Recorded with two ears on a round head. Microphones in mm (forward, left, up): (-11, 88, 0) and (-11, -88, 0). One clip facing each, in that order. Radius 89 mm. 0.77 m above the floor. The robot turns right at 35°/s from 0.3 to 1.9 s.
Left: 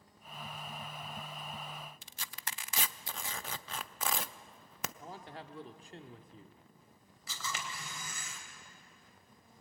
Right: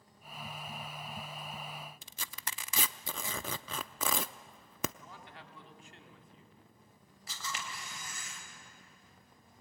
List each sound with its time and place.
2.0 s tearing paper: 70° right (ahead or behind), 0.6 m
5.0 s a man speaking: 30° left (ahead or behind), 1.6 m
7.3 s a camera shutter: 80° left, 3.5 m